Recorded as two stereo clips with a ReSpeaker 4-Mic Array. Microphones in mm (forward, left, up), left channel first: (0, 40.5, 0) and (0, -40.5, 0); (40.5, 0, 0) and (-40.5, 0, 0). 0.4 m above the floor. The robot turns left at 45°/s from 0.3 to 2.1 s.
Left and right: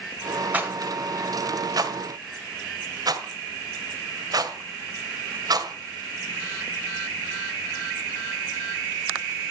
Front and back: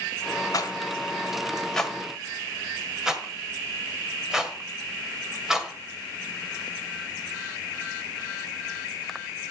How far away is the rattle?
About 1.7 m.